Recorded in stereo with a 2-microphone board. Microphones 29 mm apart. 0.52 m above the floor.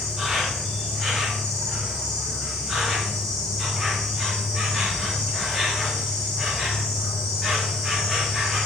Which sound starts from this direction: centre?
An insect, at 0.0 s.